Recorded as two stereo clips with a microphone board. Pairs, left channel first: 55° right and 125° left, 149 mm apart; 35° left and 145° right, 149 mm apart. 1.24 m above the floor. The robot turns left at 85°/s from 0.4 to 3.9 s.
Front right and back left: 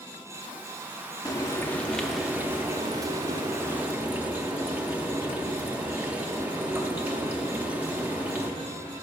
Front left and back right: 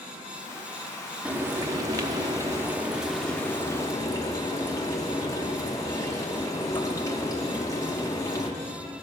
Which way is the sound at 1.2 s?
75° right.